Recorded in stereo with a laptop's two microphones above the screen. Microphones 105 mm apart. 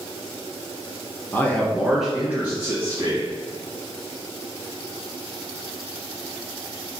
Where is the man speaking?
20° left (ahead or behind), 0.5 m; by 3.3 s 25° right (ahead or behind), 1.1 m.